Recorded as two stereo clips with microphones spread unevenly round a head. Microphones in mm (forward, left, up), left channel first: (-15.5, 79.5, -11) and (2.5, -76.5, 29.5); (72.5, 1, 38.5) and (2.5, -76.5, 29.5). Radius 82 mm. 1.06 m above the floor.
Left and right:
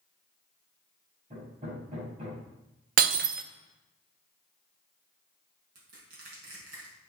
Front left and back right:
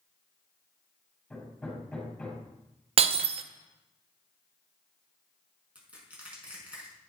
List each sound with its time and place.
1.3 s hammering: 35° right, 7 m
3.0 s breaking glass: 105° right, 0.7 m
5.8 s crushing: 55° right, 6 m